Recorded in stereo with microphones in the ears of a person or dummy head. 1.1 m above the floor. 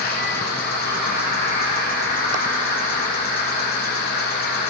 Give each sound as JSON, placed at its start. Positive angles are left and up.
{"t": 0.0, "sound": "an insect", "side_deg": 45, "distance_m": 2.0}